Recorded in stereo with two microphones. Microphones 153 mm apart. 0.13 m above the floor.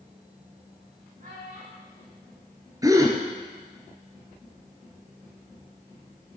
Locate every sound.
1.2 s a child speaking: 50° right (ahead or behind), 7 m
2.8 s a gasp: 20° right (ahead or behind), 2.5 m